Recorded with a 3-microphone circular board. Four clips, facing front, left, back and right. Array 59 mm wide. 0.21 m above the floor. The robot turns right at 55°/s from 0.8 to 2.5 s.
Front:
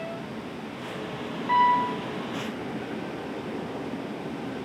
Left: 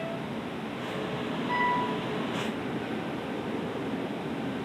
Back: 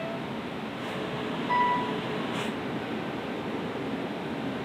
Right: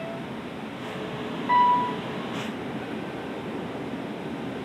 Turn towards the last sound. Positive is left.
turn(degrees=-5)